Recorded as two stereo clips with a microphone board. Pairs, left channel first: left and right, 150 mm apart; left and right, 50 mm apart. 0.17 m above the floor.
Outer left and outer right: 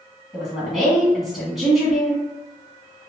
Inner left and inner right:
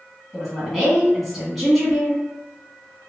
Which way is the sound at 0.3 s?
Centre (ahead or behind).